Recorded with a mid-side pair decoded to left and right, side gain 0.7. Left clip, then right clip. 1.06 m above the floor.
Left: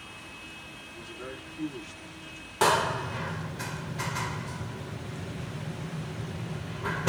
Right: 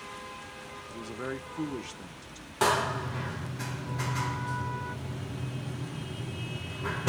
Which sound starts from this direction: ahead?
A door slam, at 2.6 s.